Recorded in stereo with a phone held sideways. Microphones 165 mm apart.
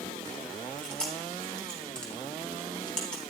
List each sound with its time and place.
0.8 s chewing: 5° left (ahead or behind), 3.5 m